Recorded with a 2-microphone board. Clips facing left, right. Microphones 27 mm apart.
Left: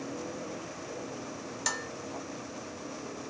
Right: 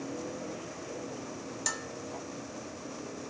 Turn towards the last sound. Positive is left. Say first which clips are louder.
# left 3 dB
turn(degrees=20)  # may be behind; listen again after turning